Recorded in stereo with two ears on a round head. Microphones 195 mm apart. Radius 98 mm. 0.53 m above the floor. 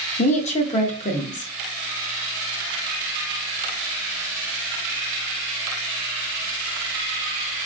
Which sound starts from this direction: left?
A woman speaking, at 0.2 s.